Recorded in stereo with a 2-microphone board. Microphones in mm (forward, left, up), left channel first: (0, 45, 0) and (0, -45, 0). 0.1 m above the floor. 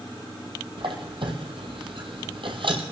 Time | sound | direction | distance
0.8 | a squeak | 70° right (ahead or behind) | 1.5 m